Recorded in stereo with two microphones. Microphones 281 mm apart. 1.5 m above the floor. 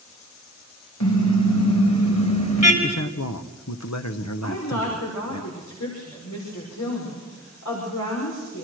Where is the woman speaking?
85° left, 5.5 m.